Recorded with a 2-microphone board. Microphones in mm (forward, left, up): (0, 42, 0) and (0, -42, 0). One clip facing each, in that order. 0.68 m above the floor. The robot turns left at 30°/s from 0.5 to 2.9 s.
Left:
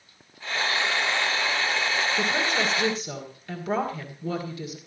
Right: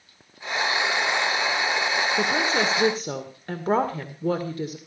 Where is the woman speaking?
25° right (ahead or behind), 2 m; by 4.8 s 45° right (ahead or behind), 2 m.